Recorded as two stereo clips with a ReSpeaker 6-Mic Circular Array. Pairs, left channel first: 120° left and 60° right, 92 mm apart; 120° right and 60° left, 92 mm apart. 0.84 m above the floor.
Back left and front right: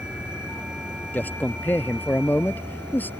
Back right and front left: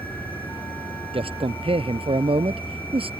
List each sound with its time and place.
0.0 s an insect: 95° right
1.1 s a man speaking: 50° left